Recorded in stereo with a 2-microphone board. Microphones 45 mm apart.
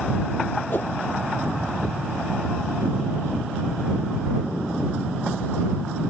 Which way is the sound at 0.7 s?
45° left (ahead or behind).